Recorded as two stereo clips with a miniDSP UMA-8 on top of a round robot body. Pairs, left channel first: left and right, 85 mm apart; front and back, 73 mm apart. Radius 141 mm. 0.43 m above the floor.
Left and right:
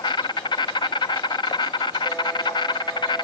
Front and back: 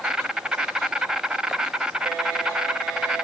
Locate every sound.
0.0 s an insect: 100° left, 0.9 m